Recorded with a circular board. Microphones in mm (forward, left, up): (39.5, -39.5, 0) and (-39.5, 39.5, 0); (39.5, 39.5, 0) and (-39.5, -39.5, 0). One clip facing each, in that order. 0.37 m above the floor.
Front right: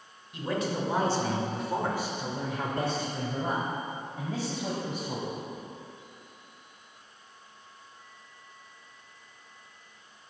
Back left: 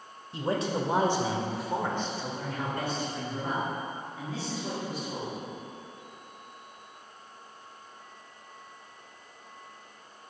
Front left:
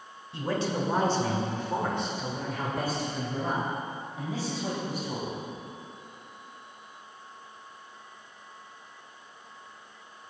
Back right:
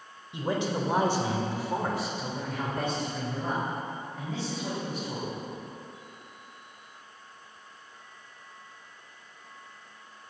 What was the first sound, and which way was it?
A man speaking, 165° left.